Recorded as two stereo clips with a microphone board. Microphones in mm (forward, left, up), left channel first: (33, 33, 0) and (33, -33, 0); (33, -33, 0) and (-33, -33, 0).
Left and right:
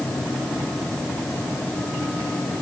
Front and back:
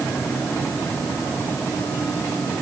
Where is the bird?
No bird in this recording.